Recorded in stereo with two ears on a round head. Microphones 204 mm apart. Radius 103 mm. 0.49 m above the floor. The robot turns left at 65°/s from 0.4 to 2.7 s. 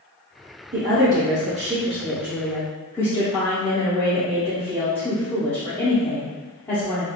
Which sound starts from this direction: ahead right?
A woman speaking, at 0.7 s.